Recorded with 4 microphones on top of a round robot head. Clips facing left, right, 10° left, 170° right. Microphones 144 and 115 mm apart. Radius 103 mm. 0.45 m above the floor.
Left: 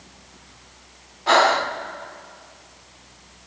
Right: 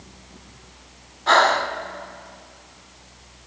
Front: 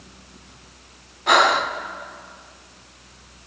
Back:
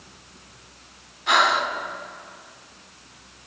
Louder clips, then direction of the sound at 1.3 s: Left 1 dB, front 3 dB; 15° left.